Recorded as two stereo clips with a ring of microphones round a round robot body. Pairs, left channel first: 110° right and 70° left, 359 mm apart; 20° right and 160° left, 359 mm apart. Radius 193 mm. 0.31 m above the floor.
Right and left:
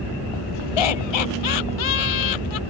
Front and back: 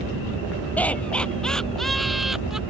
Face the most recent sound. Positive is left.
turn(degrees=-115)